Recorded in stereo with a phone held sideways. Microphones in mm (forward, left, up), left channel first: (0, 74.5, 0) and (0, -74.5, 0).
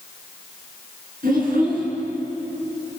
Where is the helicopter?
I don't hear a helicopter.